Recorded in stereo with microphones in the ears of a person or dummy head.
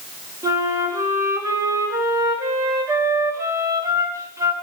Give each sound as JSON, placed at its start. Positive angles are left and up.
{"t": 0.4, "sound": "a flute", "side_deg": -20, "distance_m": 5.0}